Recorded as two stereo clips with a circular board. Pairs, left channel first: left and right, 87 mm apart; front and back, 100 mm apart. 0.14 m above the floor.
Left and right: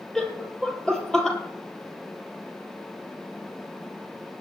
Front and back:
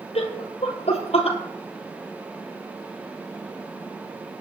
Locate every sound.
0.1 s laughter: 5° left, 3 m